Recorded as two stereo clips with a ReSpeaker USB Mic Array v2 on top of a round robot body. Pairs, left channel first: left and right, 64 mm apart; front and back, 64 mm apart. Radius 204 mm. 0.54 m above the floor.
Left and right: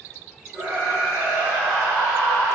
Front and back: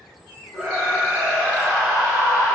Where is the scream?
140° right, 4.5 m; by 2.5 s 120° right, 4 m.